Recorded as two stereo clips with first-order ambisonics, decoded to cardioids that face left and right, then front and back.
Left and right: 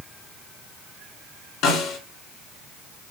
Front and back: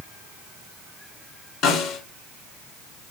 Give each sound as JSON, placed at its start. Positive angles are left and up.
{"t": 1.6, "sound": "a snare drum", "azimuth_deg": 50, "distance_m": 5.0}